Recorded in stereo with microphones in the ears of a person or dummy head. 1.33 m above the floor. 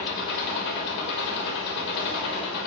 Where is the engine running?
65° left (ahead or behind), 3 m.